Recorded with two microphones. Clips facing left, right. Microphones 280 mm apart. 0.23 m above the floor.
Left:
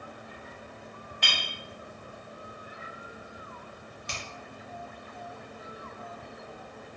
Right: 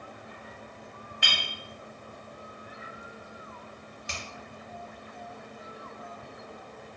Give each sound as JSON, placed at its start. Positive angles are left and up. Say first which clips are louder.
{"t": 1.2, "sound": "a clink", "louder": "even", "side_deg": -10, "distance_m": 1.1}
{"t": 4.1, "sound": "a finger snap", "louder": "even", "side_deg": -5, "distance_m": 1.0}